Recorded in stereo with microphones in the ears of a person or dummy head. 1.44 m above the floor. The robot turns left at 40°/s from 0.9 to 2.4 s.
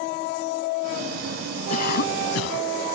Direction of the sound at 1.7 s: 45° left (ahead or behind).